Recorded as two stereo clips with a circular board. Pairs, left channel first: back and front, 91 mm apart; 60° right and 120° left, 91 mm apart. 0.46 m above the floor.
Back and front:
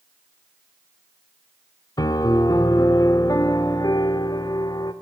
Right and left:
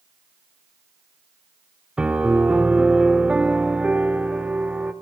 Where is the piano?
165° right, 0.8 m.